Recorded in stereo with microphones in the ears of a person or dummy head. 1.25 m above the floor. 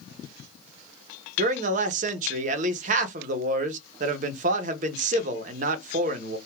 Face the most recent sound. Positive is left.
turn(degrees=-40)  # may be behind; listen again after turning